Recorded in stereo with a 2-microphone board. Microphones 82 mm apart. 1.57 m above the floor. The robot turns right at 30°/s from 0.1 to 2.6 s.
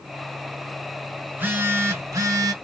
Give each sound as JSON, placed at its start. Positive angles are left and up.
{"t": 1.3, "sound": "a phone buzzing", "azimuth_deg": -155, "distance_m": 0.8}